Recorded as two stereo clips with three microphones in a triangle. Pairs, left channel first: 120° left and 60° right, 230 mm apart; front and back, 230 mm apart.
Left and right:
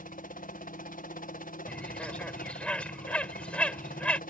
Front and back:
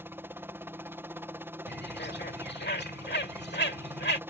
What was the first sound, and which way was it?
A helicopter, 105° left.